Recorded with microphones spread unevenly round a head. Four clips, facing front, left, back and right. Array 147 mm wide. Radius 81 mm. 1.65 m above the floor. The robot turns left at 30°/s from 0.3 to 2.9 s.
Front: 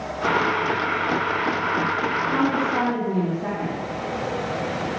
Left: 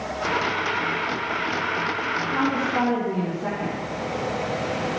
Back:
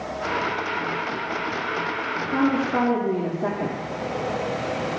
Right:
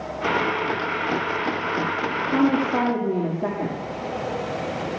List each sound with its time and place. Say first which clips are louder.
2.3 s a woman speaking: right 4 dB, back 3 dB; 95° right, 3.5 m; by 3.8 s 115° right, 3.5 m